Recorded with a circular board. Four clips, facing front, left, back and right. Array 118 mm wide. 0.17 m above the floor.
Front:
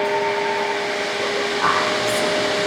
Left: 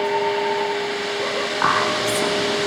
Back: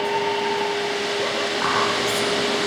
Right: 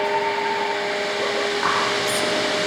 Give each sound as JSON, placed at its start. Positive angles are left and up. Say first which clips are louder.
{"t": 1.6, "sound": "whispering", "louder": "left 2 dB, front 2 dB", "azimuth_deg": 90, "distance_m": 7.5}